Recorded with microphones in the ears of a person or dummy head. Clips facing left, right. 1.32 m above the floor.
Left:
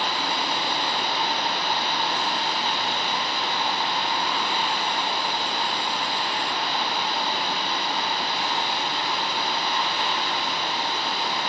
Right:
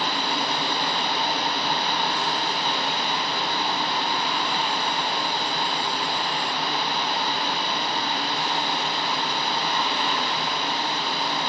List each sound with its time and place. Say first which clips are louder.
0.0 s running water: right 1 dB; 70° right (ahead or behind), 2.5 m